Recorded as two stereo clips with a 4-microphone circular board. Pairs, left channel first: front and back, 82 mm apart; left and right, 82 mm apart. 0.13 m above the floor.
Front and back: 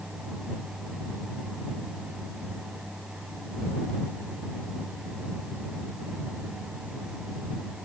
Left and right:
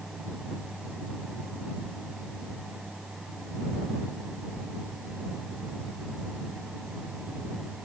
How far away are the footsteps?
I don't hear footsteps.